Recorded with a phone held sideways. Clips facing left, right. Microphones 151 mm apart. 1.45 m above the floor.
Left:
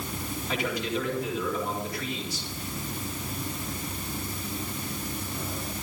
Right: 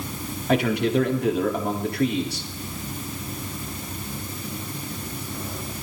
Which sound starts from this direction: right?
A man speaking, at 0.5 s.